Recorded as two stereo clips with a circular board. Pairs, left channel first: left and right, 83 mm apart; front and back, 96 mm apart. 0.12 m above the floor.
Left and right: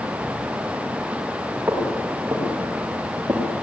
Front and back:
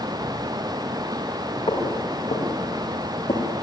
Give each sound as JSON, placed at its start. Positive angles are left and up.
{"t": 1.7, "sound": "footsteps", "azimuth_deg": -20, "distance_m": 9.0}